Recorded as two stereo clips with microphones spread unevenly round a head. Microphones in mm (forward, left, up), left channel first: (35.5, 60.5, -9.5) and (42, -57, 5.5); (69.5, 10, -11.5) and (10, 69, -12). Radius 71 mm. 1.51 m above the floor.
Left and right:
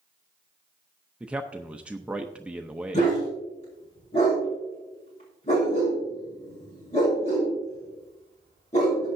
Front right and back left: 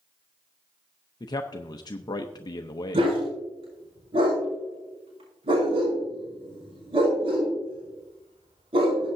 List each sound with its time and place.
1.2 s a man speaking: 5° right, 0.7 m
2.9 s a dog barking: 145° left, 4.5 m